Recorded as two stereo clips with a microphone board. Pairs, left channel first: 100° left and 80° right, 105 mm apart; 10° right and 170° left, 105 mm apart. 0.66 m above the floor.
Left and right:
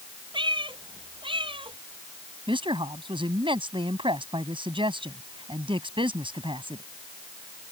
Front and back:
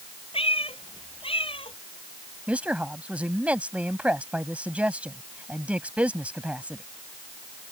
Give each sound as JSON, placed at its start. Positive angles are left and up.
{"t": 0.3, "sound": "a cat meowing", "azimuth_deg": -40}
{"t": 2.5, "sound": "a woman speaking", "azimuth_deg": -115}